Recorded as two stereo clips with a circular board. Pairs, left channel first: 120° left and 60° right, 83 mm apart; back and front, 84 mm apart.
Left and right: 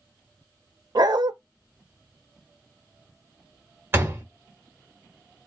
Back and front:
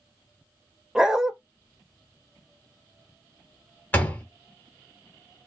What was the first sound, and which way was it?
A dog barking, 80° right.